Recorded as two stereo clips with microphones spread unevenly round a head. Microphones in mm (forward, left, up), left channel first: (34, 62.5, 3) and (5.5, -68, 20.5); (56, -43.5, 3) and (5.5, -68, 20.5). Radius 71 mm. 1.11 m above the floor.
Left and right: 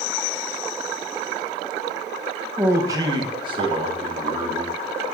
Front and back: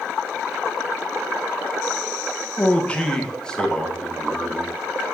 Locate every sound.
2.6 s a man speaking: 25° right, 1.1 m; by 4.8 s 55° right, 3.5 m